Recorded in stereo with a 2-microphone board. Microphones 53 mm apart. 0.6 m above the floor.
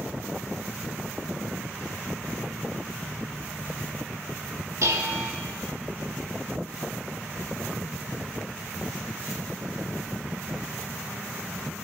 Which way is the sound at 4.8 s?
65° right (ahead or behind).